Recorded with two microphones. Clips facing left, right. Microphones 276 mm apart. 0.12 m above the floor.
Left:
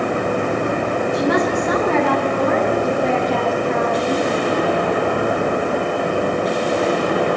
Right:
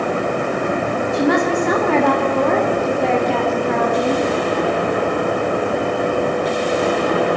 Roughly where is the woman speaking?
Right.